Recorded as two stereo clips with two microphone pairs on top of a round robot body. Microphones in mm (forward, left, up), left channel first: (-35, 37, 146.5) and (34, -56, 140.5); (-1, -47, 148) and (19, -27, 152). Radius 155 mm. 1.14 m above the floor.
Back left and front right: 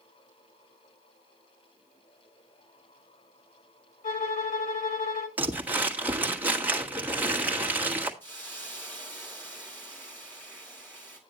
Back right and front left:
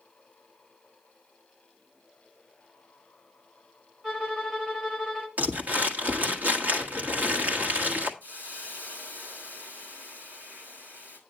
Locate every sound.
4.0 s a violin: 115° left, 1.7 m
5.4 s crumpling: 25° left, 1.5 m
8.2 s a hiss: 50° left, 4 m